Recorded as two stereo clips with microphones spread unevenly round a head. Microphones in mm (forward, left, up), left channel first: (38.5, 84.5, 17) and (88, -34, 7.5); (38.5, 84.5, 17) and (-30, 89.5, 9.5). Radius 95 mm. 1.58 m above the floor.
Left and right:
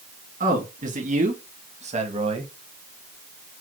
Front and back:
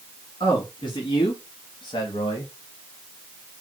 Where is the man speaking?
50° right, 2.5 m; by 2.5 s 25° right, 1.6 m.